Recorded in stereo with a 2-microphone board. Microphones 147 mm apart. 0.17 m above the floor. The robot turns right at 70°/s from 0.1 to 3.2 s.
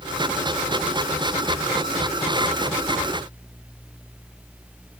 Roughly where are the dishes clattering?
I don't hear dishes clattering.